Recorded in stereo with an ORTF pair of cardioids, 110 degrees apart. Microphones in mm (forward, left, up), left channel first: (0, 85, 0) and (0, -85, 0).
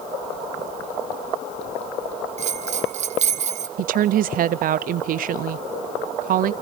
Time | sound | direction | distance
2.4 | a bell | 45° right | 1.6 m
3.8 | a woman speaking | 55° right | 0.8 m